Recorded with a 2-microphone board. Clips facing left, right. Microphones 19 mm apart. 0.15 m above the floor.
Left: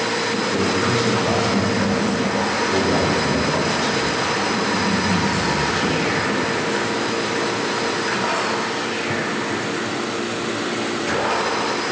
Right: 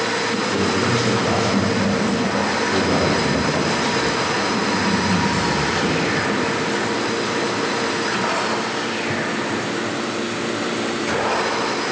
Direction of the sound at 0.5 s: 40° right (ahead or behind).